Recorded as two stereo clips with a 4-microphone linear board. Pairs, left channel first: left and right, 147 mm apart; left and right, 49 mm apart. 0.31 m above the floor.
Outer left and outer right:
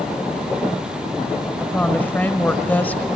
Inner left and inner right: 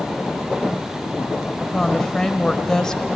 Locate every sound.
1.6 s a woman speaking: 10° left (ahead or behind), 1.2 m